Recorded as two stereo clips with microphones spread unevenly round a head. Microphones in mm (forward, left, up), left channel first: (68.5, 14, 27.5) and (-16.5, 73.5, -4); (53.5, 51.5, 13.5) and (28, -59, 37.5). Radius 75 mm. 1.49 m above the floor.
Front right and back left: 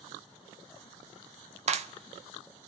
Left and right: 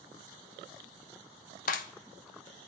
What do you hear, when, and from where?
1.7 s a clap: 115° left, 0.7 m